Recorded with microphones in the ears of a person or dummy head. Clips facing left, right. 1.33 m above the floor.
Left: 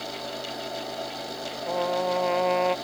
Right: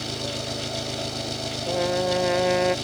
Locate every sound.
0.0 s an engine running: 50° right (ahead or behind)
1.7 s a trumpet: 20° right (ahead or behind)